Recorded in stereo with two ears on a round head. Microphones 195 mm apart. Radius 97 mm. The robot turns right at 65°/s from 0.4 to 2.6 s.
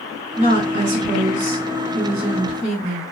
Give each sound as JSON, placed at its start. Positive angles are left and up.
{"t": 0.4, "sound": "a woman speaking", "azimuth_deg": -130, "distance_m": 1.7}